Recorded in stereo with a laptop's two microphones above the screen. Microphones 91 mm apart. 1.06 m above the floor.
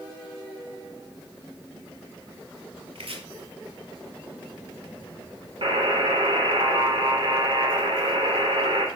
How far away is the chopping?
About 2.5 m.